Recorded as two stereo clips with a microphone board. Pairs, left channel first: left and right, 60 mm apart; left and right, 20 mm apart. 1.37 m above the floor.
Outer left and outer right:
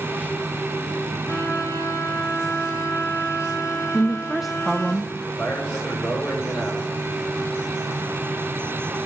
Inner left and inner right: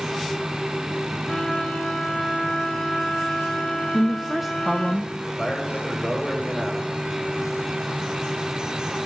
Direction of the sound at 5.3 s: 30° left (ahead or behind).